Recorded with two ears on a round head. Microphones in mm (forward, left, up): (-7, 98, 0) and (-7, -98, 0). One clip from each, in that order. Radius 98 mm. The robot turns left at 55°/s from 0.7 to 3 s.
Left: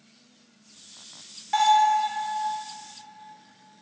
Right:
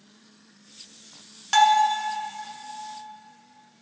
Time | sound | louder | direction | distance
1.5 | a bell | right 1 dB | 70° right (ahead or behind) | 1.1 m